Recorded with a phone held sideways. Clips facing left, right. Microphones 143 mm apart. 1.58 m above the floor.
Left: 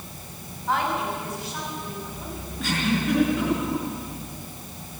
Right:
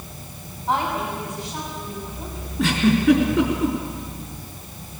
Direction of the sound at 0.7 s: 20° right (ahead or behind).